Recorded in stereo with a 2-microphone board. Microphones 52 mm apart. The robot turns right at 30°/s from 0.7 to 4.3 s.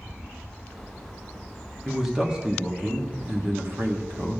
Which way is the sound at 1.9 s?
5° right (ahead or behind).